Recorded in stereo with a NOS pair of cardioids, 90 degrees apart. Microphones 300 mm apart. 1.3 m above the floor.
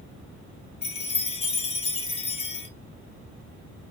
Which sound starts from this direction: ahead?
A chime, at 0.8 s.